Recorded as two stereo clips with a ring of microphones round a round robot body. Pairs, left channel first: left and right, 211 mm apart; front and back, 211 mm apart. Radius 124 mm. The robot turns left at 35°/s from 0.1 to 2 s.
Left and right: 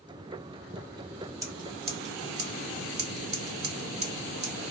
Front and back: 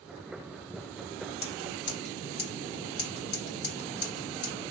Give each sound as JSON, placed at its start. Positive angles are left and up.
{"t": 1.4, "sound": "scissors", "azimuth_deg": -15, "distance_m": 1.7}